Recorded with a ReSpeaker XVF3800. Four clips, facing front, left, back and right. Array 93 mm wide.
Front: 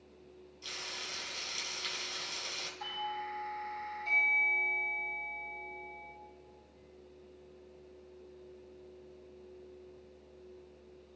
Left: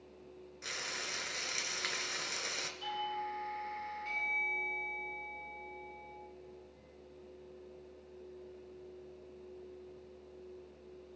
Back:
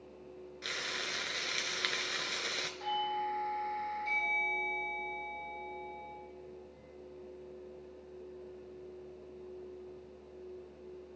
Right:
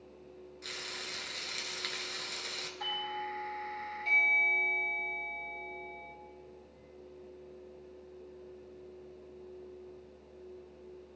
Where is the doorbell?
85° right, 3.5 m.